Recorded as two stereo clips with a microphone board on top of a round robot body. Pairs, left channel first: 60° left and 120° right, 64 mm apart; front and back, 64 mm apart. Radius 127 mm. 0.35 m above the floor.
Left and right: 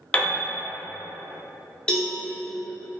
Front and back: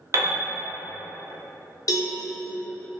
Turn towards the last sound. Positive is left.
turn(degrees=-15)